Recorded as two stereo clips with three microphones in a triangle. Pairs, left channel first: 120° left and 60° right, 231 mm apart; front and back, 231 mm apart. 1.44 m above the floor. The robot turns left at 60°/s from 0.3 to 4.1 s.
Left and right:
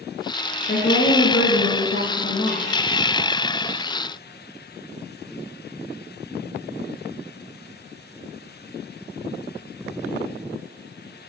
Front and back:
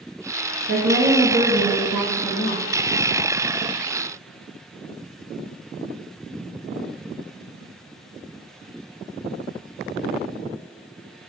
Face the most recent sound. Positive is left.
turn(degrees=-35)